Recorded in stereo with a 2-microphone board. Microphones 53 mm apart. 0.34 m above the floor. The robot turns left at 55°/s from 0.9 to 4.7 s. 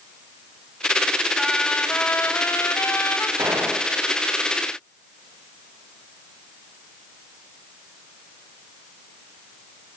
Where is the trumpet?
175° left, 2.5 m; by 3.3 s 70° left, 2.5 m.